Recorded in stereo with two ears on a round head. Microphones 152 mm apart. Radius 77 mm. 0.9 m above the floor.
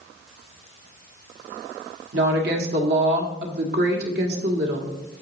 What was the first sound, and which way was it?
A woman speaking, 65° right (ahead or behind).